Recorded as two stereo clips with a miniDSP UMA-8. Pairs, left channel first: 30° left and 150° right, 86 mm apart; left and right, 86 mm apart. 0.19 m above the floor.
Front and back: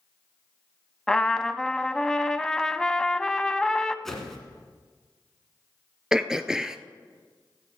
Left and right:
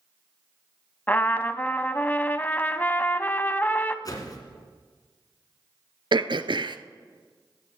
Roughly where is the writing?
No writing in this recording.